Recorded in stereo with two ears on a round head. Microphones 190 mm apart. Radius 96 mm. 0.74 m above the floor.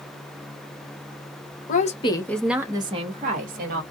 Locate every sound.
1.7 s a woman speaking: 40° left (ahead or behind), 1.0 m; by 3.8 s 45° right (ahead or behind), 1.6 m